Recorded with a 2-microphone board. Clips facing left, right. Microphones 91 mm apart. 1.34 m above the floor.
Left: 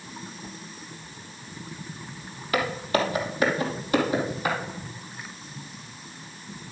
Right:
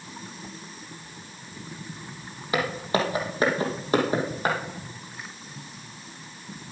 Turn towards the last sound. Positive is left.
turn(degrees=-40)  # may be behind; listen again after turning